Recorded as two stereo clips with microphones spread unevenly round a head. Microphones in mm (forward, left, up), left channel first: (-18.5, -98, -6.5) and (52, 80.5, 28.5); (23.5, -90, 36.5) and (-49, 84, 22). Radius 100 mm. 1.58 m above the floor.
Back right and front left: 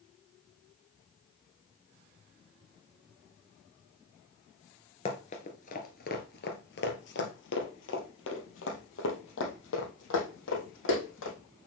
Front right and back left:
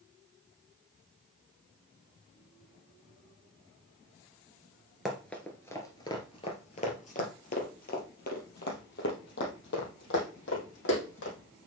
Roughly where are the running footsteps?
Behind right.